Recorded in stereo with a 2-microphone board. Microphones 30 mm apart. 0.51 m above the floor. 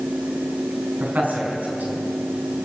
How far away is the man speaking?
About 4.5 m.